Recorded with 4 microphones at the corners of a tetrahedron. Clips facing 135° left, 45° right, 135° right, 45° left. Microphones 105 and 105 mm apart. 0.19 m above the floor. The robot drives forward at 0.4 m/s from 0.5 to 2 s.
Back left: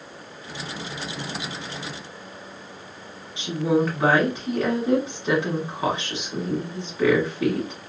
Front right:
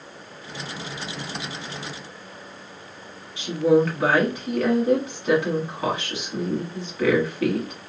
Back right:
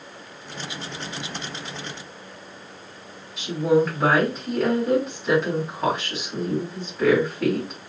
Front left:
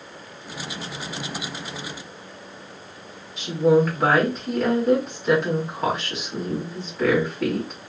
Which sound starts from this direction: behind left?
A woman speaking, at 3.4 s.